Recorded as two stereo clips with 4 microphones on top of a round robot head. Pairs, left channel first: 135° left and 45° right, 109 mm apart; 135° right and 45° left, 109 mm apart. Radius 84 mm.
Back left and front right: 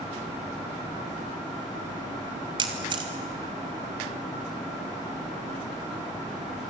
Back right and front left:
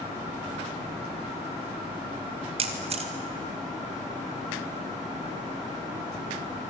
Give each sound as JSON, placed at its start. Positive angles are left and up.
{"t": 2.6, "sound": "a camera shutter", "azimuth_deg": 5, "distance_m": 2.0}